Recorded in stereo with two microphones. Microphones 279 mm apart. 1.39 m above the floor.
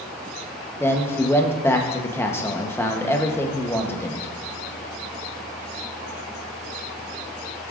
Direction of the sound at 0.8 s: 10° left (ahead or behind).